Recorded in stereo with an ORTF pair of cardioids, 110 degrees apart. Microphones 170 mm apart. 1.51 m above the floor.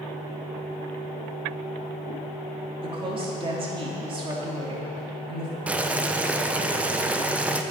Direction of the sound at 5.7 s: 10° right.